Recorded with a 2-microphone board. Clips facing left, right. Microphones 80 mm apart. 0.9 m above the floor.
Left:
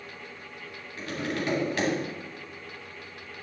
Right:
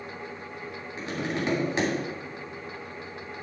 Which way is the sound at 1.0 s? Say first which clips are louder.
Right 1 dB; 20° right (ahead or behind).